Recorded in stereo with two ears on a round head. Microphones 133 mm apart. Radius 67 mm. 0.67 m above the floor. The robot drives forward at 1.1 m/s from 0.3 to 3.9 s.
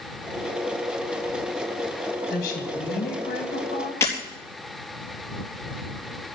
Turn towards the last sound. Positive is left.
turn(degrees=20)  # may be behind; listen again after turning